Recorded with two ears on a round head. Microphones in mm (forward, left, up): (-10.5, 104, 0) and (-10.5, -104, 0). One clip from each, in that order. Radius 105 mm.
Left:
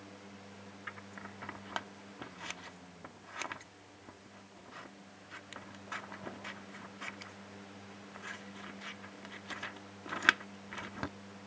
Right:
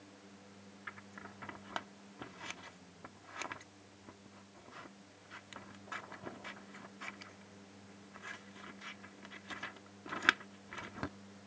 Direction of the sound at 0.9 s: 10° left (ahead or behind).